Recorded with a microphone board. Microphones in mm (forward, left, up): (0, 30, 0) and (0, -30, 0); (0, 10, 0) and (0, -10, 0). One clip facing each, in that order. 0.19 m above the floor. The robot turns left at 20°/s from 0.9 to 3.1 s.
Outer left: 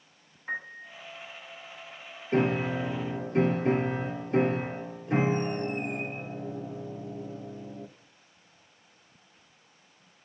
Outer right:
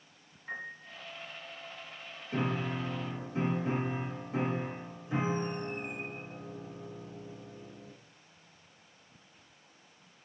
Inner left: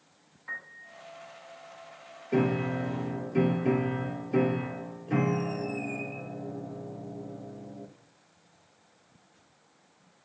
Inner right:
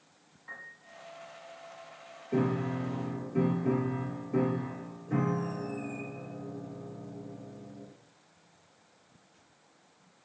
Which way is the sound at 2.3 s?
60° left (ahead or behind).